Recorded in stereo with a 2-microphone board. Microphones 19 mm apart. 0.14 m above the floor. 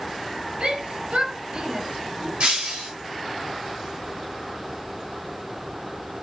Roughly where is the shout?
Right.